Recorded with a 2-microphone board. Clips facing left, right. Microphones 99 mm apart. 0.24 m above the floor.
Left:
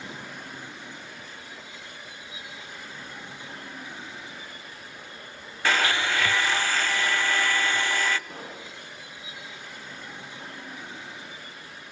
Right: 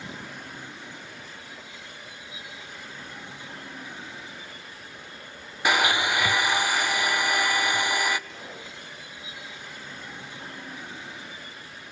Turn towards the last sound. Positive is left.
turn(degrees=45)  # may be behind; listen again after turning